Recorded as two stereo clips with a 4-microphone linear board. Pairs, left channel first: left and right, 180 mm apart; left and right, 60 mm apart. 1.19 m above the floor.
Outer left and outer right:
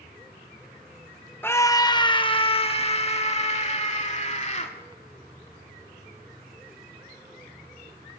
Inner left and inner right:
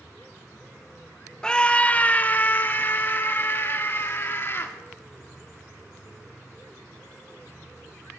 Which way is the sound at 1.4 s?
15° left (ahead or behind).